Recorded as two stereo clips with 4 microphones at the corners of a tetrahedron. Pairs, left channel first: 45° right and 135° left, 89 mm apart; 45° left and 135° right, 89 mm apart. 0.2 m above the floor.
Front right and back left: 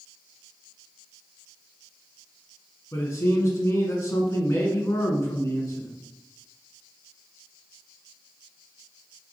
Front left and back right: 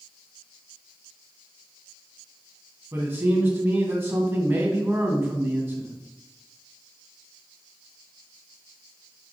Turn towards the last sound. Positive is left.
turn(degrees=-80)